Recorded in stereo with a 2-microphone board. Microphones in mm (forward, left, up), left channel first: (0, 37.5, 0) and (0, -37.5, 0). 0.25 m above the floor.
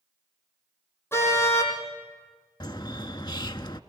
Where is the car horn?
30° left (ahead or behind), 5.5 m.